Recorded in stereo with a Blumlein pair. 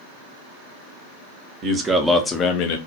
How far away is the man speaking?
About 0.7 m.